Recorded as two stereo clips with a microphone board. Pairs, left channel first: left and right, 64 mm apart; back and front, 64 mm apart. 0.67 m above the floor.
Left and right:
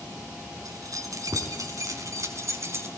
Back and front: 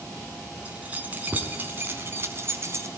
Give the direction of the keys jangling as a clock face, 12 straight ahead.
2 o'clock.